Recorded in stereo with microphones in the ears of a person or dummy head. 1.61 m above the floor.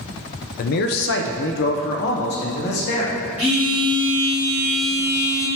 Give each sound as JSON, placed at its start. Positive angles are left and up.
{"t": 0.6, "sound": "a man speaking", "side_deg": 50, "distance_m": 0.5}
{"t": 3.4, "sound": "a phone buzzing", "side_deg": -10, "distance_m": 1.4}